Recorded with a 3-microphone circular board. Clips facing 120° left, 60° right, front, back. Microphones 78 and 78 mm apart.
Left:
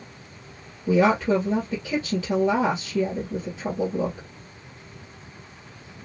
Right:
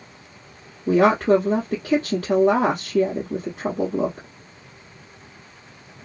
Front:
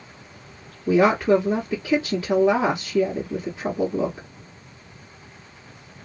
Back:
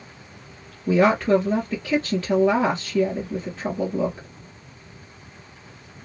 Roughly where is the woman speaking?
Right.